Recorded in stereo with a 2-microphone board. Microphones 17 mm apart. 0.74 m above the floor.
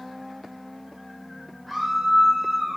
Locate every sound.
1.7 s a scream: centre (ahead or behind), 7 m; by 2.8 s 5° right (ahead or behind), 6.5 m